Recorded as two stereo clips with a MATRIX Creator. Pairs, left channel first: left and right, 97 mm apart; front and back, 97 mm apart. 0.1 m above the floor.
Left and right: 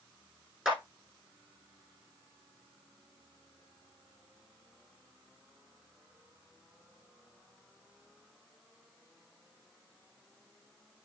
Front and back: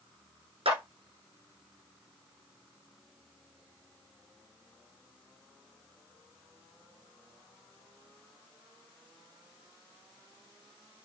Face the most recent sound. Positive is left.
turn(degrees=-170)